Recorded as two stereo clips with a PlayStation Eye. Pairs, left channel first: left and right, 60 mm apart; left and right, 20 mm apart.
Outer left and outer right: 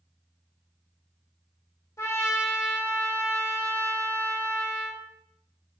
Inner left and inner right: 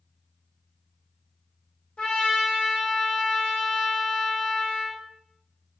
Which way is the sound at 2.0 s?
55° left (ahead or behind).